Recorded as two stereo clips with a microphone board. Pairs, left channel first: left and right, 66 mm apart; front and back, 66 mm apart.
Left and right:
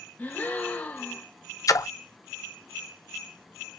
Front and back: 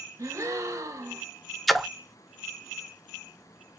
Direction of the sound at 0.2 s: 150° left.